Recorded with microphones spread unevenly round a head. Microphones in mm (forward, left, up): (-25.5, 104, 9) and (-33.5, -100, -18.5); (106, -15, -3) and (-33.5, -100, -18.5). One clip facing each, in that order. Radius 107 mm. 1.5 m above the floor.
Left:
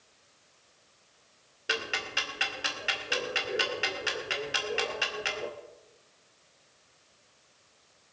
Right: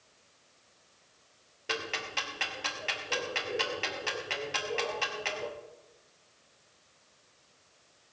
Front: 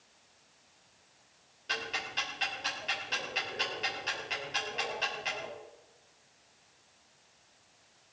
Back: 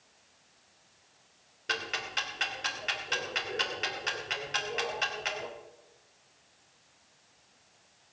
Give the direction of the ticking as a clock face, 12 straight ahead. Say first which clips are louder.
Left 1 dB, back 2 dB; 7 o'clock.